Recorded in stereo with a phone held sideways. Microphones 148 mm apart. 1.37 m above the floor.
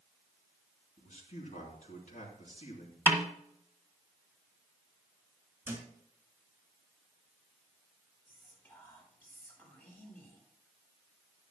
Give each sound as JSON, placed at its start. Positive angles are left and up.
{"t": 1.0, "sound": "a man speaking", "side_deg": 65, "distance_m": 3.5}
{"t": 3.1, "sound": "a snare drum", "side_deg": -15, "distance_m": 1.9}
{"t": 5.7, "sound": "a thud", "side_deg": -15, "distance_m": 4.5}
{"t": 8.2, "sound": "whispering", "side_deg": 15, "distance_m": 5.0}